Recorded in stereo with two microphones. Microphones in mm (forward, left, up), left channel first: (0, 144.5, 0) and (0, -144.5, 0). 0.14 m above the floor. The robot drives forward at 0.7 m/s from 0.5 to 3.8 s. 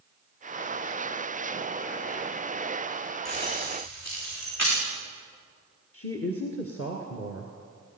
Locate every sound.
3.2 s keys jangling: 65° left (ahead or behind), 9.5 m
5.9 s a woman speaking: 50° left (ahead or behind), 2 m